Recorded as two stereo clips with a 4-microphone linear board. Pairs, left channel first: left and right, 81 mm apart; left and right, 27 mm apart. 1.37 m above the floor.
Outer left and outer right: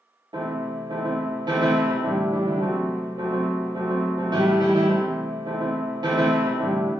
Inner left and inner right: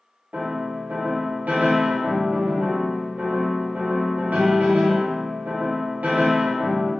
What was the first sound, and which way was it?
A piano, 70° right (ahead or behind).